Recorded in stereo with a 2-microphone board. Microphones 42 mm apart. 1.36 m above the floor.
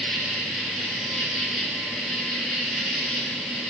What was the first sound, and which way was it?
An insect, centre (ahead or behind).